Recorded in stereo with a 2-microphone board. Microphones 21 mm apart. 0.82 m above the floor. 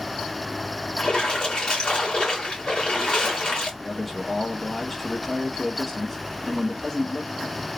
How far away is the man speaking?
About 1.8 m.